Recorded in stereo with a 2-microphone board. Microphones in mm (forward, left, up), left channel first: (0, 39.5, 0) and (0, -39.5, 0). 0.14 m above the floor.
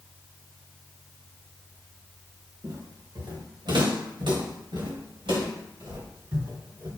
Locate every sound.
2.6 s footsteps: 65° right (ahead or behind), 1.7 m; by 6.9 s 85° right, 4 m